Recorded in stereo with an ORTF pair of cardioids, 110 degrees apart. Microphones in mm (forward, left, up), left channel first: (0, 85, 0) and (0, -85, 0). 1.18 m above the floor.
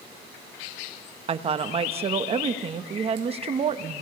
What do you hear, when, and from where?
1.3 s a woman speaking: 35° right, 1.1 m